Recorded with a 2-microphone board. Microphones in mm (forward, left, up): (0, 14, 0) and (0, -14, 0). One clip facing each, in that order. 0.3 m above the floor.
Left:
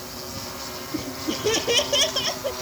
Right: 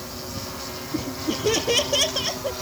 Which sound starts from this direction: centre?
Laughter, at 0.9 s.